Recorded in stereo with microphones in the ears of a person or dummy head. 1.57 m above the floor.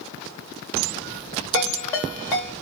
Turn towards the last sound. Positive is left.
turn(degrees=20)  # may be behind; listen again after turning